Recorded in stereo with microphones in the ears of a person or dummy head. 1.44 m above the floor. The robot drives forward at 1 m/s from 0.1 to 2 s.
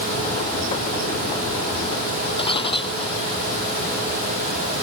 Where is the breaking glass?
30° left (ahead or behind).